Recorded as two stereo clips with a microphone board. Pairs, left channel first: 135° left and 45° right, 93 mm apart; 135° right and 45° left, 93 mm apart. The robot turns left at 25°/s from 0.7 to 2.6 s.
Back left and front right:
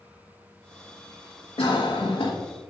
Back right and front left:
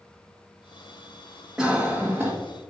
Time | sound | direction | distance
1.6 | a cough | 130° left | 1.4 m